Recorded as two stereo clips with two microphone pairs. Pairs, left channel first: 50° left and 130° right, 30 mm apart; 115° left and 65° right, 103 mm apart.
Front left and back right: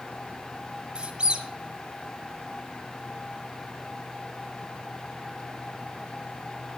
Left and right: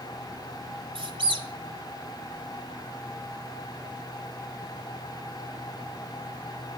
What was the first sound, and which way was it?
A squeak, 75° right.